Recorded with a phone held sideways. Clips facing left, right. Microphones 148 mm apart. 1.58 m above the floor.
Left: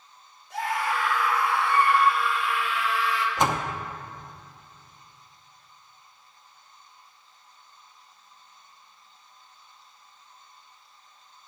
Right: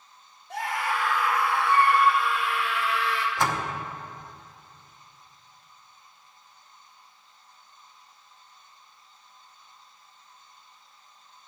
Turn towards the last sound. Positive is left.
turn(degrees=20)  # may be behind; listen again after turning